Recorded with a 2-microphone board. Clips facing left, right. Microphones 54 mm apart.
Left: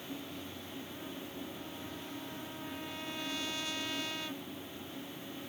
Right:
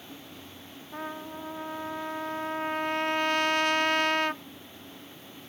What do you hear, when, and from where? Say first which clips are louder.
0.9 s a trumpet: right 12 dB; 55° right (ahead or behind)